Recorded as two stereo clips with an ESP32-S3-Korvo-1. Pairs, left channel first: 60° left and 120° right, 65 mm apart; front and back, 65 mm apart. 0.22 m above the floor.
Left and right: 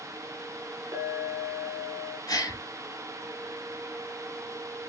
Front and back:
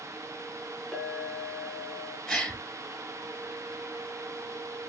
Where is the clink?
100° right, 1.4 m.